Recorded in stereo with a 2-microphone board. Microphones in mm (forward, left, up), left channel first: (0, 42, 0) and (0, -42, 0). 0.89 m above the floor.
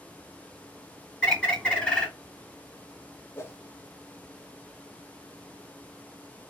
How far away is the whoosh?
About 0.8 m.